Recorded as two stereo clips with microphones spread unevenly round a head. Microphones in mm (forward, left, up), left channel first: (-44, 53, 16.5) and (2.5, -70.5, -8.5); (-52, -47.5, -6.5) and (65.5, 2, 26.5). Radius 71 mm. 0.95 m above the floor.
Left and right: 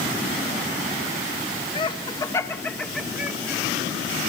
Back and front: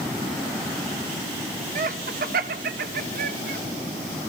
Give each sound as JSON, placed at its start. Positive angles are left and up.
{"t": 1.8, "sound": "laughter", "azimuth_deg": 50, "distance_m": 1.3}